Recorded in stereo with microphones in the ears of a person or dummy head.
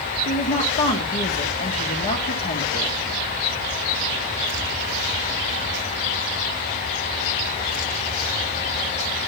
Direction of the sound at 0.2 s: 45° left (ahead or behind).